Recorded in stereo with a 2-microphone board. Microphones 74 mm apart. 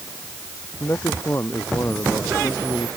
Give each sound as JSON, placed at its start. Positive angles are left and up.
{"t": 0.8, "sound": "a man speaking", "side_deg": 35}